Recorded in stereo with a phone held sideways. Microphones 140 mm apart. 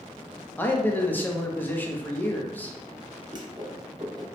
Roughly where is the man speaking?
Centre.